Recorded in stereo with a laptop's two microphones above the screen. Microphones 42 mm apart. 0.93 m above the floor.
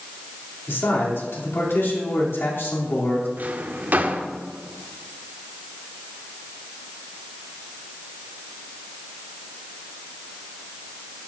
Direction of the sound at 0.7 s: 75° left (ahead or behind).